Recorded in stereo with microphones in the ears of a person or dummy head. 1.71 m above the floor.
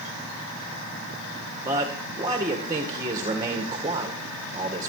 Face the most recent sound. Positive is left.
turn(degrees=-20)  # may be behind; listen again after turning